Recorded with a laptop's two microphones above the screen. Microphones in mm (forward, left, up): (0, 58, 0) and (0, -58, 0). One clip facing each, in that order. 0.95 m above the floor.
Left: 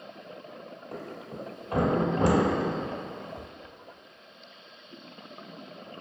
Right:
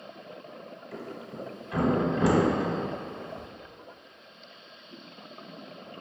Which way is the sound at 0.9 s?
50° left (ahead or behind).